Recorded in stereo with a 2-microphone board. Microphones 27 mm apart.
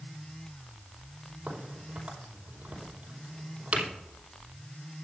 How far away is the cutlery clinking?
No cutlery clinking in this recording.